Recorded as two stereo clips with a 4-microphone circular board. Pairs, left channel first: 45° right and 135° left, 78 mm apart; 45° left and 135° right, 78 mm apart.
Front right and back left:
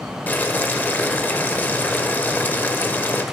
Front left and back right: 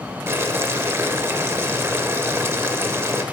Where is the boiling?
100° right, 0.5 m.